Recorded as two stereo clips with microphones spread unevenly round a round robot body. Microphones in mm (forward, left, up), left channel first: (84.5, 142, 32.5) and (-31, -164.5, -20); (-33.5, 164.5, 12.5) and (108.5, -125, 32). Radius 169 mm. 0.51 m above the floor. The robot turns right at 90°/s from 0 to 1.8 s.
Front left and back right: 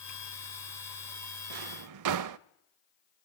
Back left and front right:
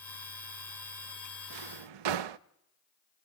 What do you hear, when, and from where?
1.5 s a drawer: 100° right, 0.5 m; by 2.4 s 70° right, 0.5 m